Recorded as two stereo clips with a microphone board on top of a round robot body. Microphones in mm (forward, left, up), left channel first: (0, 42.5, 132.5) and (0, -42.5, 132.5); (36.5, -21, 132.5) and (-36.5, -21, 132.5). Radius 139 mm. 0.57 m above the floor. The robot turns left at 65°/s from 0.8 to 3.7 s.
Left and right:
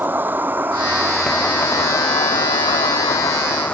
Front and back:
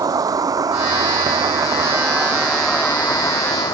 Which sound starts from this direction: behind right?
An insect, at 0.0 s.